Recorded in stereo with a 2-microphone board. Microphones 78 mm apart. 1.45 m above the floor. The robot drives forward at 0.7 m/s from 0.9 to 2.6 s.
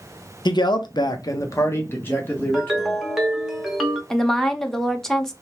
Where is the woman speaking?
5° left (ahead or behind), 0.5 m.